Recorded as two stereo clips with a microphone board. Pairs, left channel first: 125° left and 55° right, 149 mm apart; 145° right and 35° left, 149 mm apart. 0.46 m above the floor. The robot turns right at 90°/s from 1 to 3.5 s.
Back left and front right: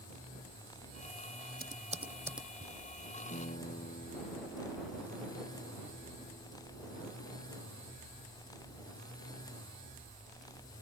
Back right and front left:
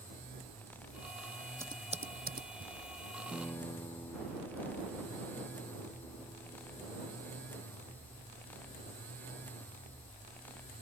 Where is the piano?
125° left; by 7.3 s 145° left.